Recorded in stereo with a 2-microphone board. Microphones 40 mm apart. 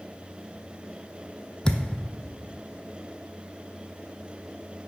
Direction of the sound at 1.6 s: 15° left (ahead or behind).